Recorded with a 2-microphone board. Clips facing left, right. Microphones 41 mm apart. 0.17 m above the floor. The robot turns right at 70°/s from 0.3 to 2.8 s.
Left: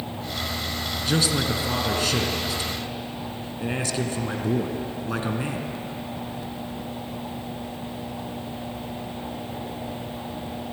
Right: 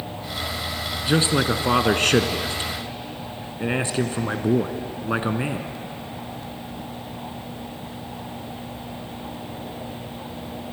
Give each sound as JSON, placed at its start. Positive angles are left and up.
{"t": 1.1, "sound": "a man speaking", "azimuth_deg": -155, "distance_m": 1.6}